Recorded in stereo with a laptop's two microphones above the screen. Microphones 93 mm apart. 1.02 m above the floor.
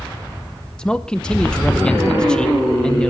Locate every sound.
0.8 s a man speaking: 10° left (ahead or behind), 0.8 m